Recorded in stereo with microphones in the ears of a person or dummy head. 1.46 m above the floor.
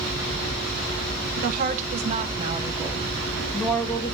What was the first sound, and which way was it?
A woman speaking, 50° right (ahead or behind).